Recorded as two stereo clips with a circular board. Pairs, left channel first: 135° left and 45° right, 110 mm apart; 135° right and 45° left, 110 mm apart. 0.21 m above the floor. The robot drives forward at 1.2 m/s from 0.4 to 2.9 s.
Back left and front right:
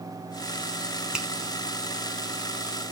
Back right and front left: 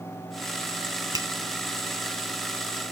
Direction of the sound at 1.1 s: 30° left.